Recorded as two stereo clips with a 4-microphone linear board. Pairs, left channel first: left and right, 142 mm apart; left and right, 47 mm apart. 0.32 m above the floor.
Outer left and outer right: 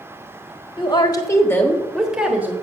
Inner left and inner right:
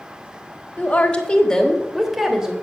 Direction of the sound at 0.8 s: 35° left (ahead or behind).